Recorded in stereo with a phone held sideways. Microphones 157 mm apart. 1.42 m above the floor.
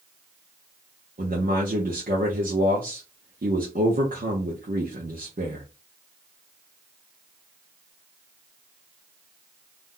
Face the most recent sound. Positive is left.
turn(degrees=-65)  # may be behind; listen again after turning